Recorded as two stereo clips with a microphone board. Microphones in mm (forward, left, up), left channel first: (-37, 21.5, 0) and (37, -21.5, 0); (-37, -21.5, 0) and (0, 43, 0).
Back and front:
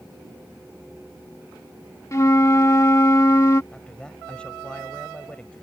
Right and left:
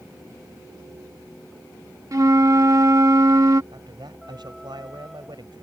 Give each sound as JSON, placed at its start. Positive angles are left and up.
{"t": 2.1, "sound": "a flute", "azimuth_deg": 100}
{"t": 3.7, "sound": "a man speaking", "azimuth_deg": 70}